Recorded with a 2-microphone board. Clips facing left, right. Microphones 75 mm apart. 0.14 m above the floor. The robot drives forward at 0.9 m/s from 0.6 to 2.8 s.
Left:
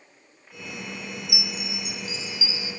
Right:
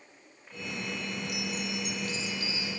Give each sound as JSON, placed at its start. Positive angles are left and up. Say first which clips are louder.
{"t": 1.3, "sound": "a chime", "louder": "even", "side_deg": 10, "distance_m": 0.5}